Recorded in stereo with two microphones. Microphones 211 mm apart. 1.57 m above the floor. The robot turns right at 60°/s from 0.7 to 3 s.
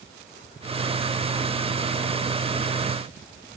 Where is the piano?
No piano in this recording.